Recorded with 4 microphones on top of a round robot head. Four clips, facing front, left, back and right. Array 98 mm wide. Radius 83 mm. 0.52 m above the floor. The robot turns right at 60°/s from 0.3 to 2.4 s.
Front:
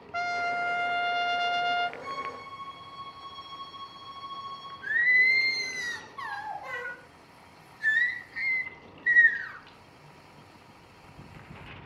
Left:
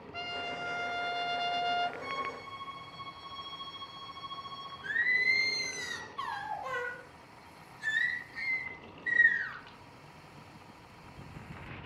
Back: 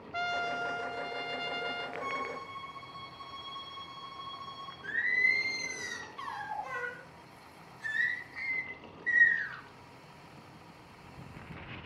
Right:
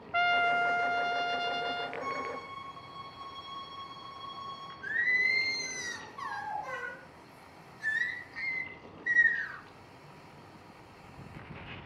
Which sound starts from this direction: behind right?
A violin, at 2.0 s.